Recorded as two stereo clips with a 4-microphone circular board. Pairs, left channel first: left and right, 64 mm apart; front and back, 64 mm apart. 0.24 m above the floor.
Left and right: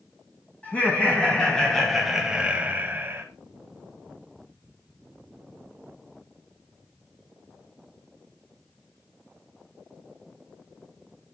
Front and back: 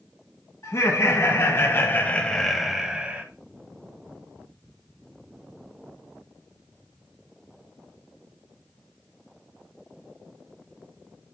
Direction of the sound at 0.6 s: 25° left.